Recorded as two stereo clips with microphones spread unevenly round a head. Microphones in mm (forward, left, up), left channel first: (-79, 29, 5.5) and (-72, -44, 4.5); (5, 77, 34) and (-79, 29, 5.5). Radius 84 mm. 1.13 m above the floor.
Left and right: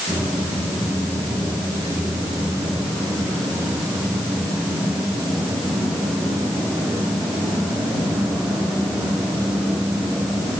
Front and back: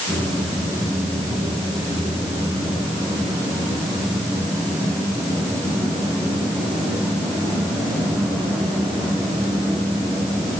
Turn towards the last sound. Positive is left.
No sound to turn to.